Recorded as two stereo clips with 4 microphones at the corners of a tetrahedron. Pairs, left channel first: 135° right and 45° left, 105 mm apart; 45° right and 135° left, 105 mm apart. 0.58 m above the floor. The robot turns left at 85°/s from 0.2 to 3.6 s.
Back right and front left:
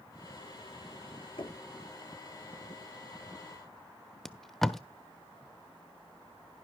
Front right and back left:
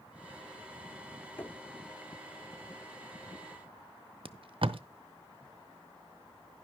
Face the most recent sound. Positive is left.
turn(degrees=135)